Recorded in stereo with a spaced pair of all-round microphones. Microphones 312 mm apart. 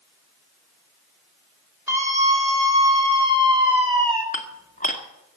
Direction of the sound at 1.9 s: 10° right (ahead or behind).